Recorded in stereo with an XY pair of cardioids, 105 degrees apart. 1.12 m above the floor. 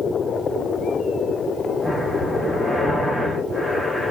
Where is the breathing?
10° left, 5 m.